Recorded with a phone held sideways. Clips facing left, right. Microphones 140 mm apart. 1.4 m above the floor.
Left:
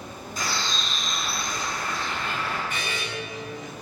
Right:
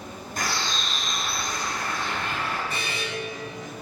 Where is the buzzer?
35° right (ahead or behind), 6 m.